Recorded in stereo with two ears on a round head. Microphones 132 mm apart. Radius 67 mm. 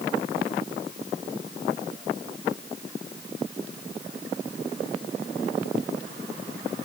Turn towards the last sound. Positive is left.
No sound to turn to.